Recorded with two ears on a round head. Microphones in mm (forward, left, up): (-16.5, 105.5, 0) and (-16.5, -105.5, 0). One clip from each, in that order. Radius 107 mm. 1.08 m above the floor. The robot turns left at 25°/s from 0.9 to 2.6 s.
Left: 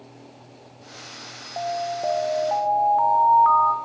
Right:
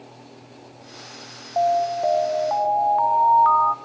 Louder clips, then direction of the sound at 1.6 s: Right 7 dB; 50° right (ahead or behind).